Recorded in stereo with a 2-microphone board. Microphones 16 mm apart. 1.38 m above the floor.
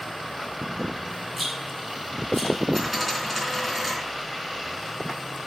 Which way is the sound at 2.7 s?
5° left (ahead or behind).